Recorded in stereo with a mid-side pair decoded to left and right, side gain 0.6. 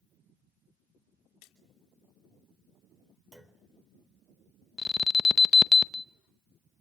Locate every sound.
1.4 s a splash: 65° left, 3 m
3.3 s a clunk: 10° right, 3.5 m
4.8 s an alarm: 25° left, 0.7 m